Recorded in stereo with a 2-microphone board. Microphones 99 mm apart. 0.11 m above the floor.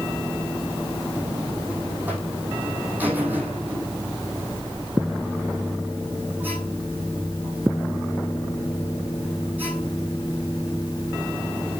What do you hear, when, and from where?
1.1 s a buzzer: 20° right (ahead or behind), 4.5 m